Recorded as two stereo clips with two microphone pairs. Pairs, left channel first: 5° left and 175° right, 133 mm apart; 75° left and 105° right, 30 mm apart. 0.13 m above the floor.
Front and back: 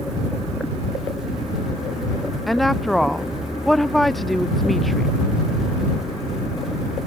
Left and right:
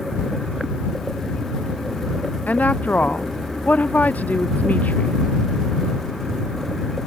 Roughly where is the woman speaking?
Left.